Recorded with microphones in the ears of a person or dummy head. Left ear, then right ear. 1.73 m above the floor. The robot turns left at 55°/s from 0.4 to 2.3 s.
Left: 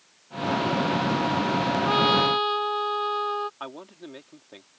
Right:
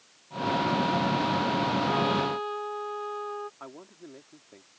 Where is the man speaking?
85° left.